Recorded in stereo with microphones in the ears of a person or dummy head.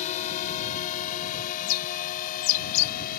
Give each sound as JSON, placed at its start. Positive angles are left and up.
{"t": 0.0, "sound": "a drone", "side_deg": 35}
{"t": 1.6, "sound": "a bird", "side_deg": 85}